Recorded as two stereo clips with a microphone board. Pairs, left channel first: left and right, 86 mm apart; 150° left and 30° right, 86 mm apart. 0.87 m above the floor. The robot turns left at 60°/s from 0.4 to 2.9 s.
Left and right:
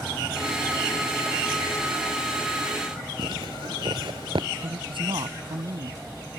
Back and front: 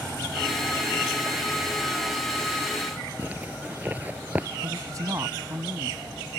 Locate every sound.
3.2 s a zipper: 100° right
4.6 s a man speaking: 80° right